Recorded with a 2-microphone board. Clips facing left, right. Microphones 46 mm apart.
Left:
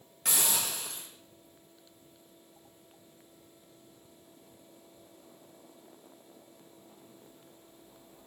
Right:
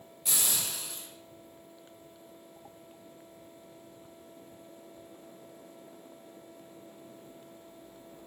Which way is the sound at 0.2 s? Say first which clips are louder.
Left 3 dB; 65° left (ahead or behind).